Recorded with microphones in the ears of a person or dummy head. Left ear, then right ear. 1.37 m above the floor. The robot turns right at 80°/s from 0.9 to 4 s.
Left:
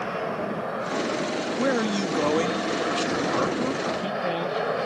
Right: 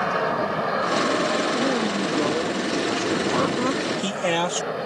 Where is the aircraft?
95° right; by 4.9 s 155° left.